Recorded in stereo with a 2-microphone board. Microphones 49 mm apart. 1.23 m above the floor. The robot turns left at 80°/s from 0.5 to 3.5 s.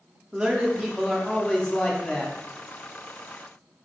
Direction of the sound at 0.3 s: 15° right (ahead or behind).